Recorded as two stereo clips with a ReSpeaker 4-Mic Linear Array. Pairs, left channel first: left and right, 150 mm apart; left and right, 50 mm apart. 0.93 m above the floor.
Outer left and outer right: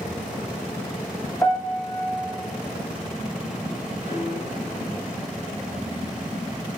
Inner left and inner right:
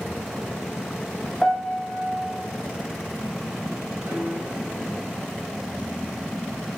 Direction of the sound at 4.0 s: 65° right (ahead or behind).